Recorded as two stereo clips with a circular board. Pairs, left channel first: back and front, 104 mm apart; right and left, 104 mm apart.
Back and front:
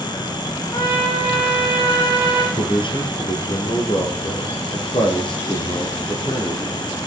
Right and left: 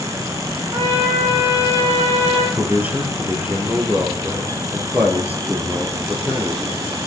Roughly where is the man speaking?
Behind.